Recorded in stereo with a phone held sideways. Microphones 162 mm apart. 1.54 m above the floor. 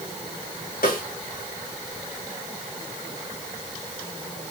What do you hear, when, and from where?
0.8 s a snare drum: 80° left, 4.5 m